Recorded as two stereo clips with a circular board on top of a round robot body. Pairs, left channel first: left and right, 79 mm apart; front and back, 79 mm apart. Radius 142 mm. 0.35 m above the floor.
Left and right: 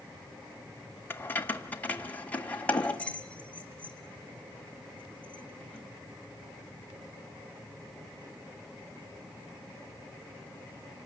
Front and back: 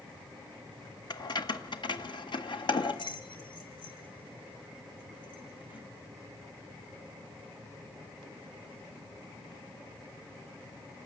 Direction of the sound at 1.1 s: 25° left.